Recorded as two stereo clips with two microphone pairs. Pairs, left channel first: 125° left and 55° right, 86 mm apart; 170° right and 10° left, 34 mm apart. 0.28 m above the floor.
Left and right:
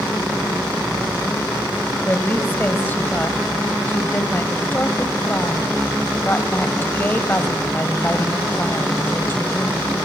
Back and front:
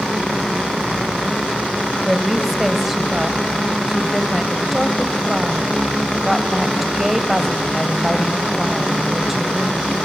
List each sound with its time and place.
2.0 s a woman speaking: 85° left, 1.0 m